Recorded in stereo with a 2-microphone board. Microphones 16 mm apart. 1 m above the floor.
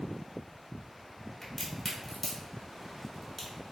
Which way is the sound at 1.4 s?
15° left (ahead or behind).